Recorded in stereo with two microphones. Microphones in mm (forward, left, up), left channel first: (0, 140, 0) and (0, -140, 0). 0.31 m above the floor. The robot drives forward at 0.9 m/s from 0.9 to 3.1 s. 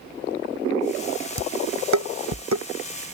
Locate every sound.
1.4 s dishes clattering: 75° right (ahead or behind); by 2.6 s 70° right (ahead or behind)